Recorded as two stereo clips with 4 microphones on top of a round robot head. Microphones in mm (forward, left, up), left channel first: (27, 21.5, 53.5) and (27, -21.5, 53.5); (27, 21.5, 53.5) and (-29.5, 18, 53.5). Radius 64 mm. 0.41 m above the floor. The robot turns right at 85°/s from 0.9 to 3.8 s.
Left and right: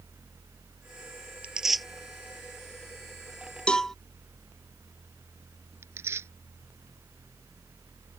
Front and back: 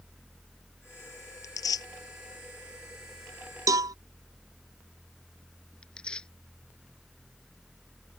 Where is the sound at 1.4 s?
30° right; by 1.9 s 5° left.